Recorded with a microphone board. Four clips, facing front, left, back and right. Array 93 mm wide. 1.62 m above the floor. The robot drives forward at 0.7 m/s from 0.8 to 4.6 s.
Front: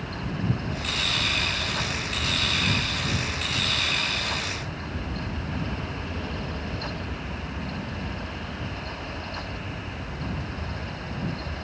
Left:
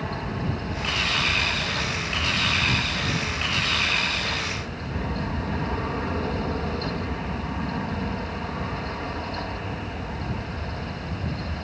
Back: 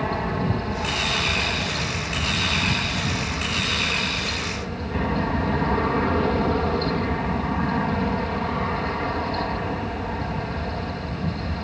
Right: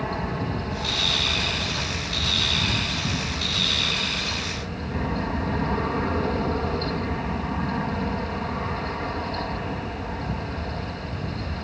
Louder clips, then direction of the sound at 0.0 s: Right 2 dB, back 7 dB; 165° right.